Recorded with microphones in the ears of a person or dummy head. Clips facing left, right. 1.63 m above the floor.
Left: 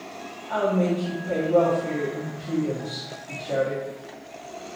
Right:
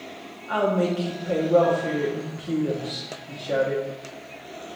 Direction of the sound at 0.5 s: 5° right (ahead or behind).